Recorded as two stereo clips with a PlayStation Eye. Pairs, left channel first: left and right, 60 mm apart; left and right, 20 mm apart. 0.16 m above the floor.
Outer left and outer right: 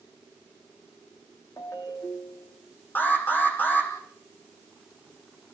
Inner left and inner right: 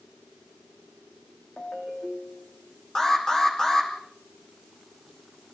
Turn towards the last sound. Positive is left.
turn(degrees=30)  # may be behind; listen again after turning